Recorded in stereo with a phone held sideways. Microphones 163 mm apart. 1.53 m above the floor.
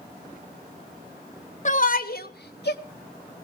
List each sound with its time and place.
1.6 s a shout: 50° left (ahead or behind), 1.3 m; by 2.8 s 90° left, 1.6 m